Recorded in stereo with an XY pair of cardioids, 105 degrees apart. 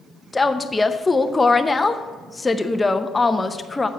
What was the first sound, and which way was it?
A woman speaking, 15° left.